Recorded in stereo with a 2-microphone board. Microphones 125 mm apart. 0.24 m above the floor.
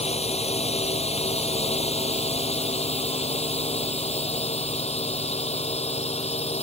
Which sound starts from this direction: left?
A drone, at 0.0 s.